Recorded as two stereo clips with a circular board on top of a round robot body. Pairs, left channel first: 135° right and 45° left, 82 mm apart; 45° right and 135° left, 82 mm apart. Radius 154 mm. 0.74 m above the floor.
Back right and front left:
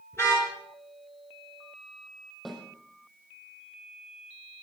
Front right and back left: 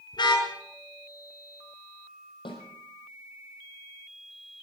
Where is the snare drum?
50° right, 6 m.